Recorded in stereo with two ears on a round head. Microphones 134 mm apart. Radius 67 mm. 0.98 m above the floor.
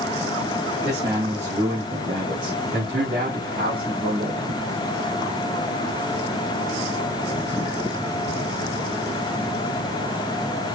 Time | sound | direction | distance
0.8 | a man speaking | 15° right (ahead or behind) | 1.3 m